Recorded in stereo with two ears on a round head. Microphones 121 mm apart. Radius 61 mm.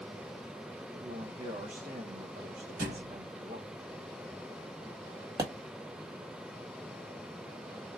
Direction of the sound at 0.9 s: 50° right (ahead or behind).